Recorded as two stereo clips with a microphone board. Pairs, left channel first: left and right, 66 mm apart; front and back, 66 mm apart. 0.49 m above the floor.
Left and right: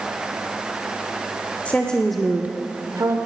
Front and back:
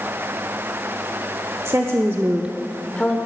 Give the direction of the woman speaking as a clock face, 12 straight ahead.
7 o'clock.